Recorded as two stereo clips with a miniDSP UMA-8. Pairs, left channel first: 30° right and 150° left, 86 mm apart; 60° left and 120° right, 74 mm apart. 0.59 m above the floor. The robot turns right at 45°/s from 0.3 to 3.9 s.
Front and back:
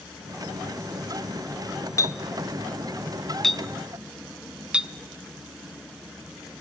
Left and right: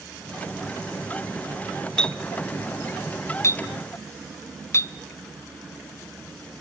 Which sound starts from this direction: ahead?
A clink, at 2.0 s.